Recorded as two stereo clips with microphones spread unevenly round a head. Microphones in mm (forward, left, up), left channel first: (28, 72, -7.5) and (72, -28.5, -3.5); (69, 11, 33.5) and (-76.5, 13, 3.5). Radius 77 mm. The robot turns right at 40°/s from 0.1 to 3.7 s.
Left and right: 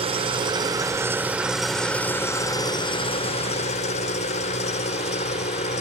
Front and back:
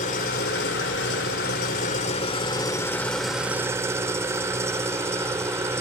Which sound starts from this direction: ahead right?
An engine running, at 0.0 s.